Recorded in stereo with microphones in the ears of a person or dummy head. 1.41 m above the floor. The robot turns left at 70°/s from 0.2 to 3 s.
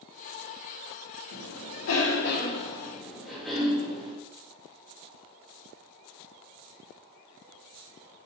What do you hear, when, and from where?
1.3 s a cough: 115° left, 3 m; by 4.1 s 5° right, 3 m